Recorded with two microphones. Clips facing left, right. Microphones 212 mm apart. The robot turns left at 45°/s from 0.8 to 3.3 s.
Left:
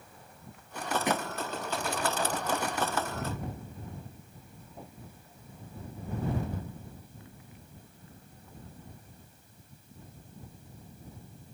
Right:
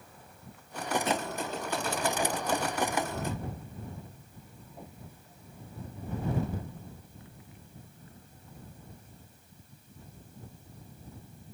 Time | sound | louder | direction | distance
1.1 | a thud | even | 15° left (ahead or behind) | ?